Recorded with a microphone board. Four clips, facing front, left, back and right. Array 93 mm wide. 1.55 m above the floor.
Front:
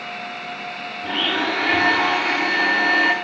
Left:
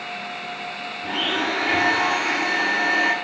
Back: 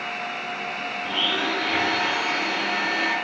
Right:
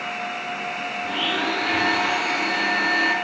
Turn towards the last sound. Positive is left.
turn(degrees=20)